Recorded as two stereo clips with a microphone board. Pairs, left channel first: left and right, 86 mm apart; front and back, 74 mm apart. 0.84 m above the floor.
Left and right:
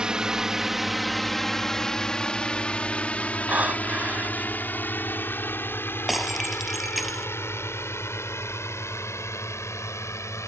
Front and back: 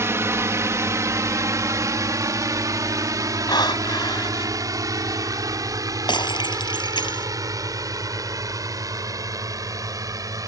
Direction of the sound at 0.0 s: 165° right.